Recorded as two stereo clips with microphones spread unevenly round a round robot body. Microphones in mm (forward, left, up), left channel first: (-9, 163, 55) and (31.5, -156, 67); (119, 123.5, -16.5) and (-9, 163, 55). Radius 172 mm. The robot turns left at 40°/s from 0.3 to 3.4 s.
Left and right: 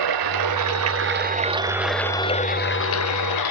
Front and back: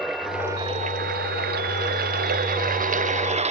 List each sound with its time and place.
0.0 s running water: 110° right; by 3.5 s 130° left